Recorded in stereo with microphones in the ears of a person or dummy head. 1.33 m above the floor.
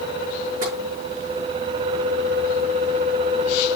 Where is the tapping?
50° right (ahead or behind), 5.5 m.